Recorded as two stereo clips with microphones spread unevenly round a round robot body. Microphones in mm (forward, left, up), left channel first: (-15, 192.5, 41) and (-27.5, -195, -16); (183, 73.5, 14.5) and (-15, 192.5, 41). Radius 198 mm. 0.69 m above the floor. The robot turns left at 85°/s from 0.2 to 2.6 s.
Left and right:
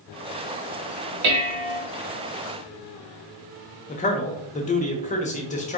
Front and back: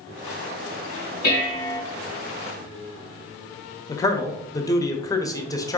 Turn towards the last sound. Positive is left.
turn(degrees=20)